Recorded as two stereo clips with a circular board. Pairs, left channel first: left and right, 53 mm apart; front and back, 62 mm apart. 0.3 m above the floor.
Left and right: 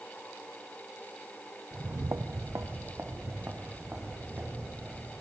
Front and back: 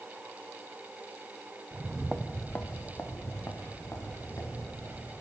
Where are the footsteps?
140° right, 0.6 m; by 5.1 s 40° right, 4 m.